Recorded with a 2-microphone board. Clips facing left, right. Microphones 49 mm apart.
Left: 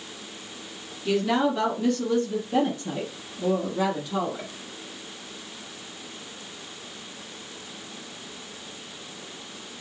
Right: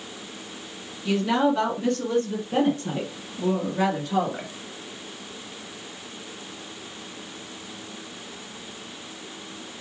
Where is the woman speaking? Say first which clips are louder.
Right 1 dB; 5° right (ahead or behind), 1.8 m; by 4.5 s 55° right (ahead or behind), 2.5 m.